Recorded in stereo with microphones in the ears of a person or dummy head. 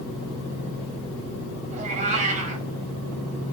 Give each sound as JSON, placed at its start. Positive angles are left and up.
{"t": 1.7, "sound": "a cat meowing", "side_deg": -40, "distance_m": 4.5}